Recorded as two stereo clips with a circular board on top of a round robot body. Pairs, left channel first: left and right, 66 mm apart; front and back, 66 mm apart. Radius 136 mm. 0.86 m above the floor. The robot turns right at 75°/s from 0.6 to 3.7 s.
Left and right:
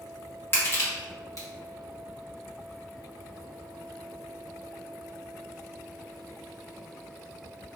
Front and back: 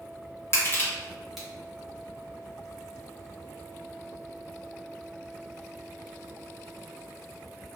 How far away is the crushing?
About 1.2 m.